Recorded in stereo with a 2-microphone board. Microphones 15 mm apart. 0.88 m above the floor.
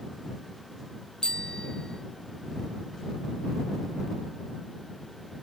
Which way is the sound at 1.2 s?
55° left (ahead or behind).